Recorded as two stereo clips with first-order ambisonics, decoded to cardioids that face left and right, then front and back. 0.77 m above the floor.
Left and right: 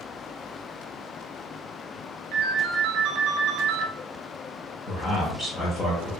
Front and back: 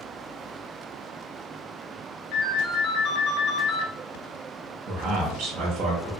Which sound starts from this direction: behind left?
A man speaking, at 4.9 s.